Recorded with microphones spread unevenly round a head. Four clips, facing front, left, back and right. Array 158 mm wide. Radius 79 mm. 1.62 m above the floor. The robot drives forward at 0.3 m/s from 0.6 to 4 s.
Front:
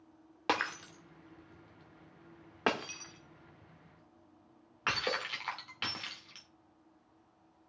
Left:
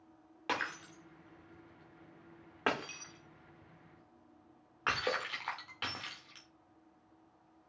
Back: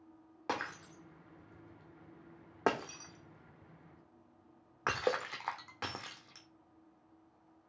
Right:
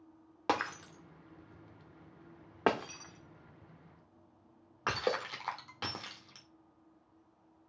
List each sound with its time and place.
0.5 s breaking glass: 55° right, 1.3 m; by 6.5 s 140° right, 1.4 m